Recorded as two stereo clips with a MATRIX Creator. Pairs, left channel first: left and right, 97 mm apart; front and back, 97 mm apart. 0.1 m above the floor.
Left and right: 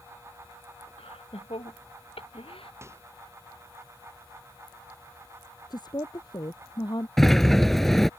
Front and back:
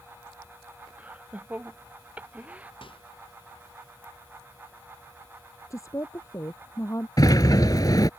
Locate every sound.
1.0 s laughter: 105° left
2.8 s a microwave: 30° right
5.7 s a woman speaking: 55° left
7.2 s a sliding door: 5° left